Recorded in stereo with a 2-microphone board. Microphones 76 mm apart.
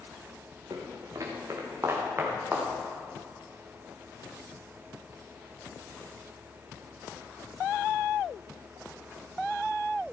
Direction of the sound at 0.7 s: 55° right (ahead or behind).